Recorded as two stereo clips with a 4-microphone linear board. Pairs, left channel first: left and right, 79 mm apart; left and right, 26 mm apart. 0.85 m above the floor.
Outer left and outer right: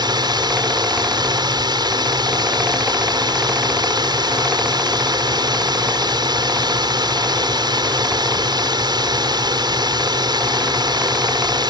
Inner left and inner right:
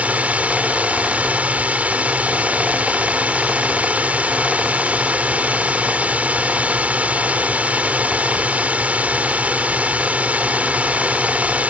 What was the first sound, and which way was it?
A drone, 65° right (ahead or behind).